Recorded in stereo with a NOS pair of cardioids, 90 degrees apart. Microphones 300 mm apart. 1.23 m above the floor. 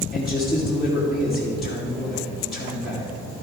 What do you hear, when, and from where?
0.1 s a man speaking: straight ahead, 2 m